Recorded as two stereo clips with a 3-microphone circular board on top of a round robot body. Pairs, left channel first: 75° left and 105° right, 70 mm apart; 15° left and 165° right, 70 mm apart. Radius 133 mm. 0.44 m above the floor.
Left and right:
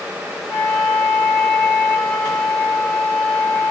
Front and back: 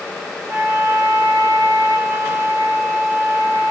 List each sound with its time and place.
0.5 s a flute: 155° left, 1.8 m